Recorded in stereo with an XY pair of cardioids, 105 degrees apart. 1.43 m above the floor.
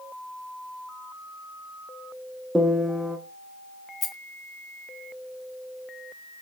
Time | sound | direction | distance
2.5 | a piano | 15° right | 0.8 m
4.0 | a rattle | 25° left | 0.8 m